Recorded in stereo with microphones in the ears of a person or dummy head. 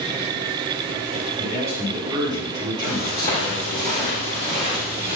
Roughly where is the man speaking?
Centre.